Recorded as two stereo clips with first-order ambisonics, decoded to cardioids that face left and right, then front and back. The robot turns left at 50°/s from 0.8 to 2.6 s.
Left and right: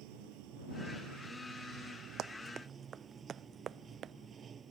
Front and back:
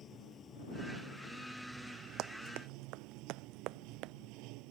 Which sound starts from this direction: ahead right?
Running water, at 0.0 s.